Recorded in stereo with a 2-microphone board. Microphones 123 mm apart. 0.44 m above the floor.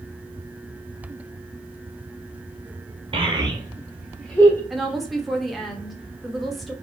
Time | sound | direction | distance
3.1 | a child speaking | 45° right (ahead or behind) | 1.3 m
4.7 | a woman speaking | centre (ahead or behind) | 0.7 m